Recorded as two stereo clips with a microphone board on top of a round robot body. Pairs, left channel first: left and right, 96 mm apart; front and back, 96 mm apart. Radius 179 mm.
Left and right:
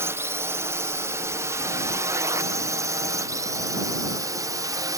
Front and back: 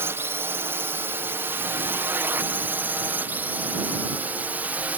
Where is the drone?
135° right; by 5.0 s 115° right.